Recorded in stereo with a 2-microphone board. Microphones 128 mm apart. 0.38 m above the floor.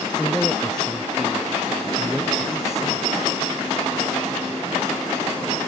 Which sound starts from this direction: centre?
A man speaking, at 0.2 s.